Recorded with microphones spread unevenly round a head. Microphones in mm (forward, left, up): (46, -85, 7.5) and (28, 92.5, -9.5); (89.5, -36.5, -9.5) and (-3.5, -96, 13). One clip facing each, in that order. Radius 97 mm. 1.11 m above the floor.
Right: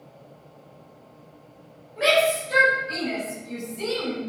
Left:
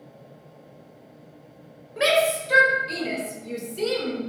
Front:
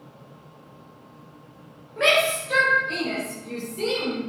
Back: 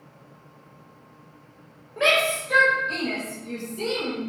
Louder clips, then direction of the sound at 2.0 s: Even, front 1 dB; 130° left.